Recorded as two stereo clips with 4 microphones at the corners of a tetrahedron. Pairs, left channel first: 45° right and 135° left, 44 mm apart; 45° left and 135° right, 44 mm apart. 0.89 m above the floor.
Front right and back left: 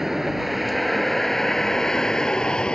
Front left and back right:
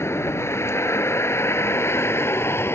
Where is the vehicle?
50° left; by 2.8 s 25° left.